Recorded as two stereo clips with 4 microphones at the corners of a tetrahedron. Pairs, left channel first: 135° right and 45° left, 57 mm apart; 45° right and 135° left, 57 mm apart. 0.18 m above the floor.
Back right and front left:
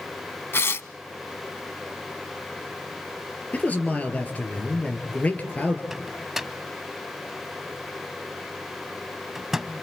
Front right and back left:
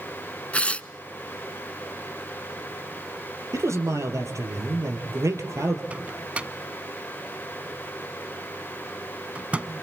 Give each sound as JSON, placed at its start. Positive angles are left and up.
{"t": 0.5, "sound": "tearing paper", "azimuth_deg": -105, "distance_m": 0.5}
{"t": 3.5, "sound": "a man speaking", "azimuth_deg": 160, "distance_m": 3.5}
{"t": 5.9, "sound": "a microwave", "azimuth_deg": 120, "distance_m": 0.8}